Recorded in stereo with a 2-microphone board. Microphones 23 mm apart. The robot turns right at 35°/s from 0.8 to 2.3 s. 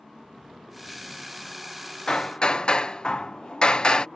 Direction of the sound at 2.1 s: 30° left (ahead or behind).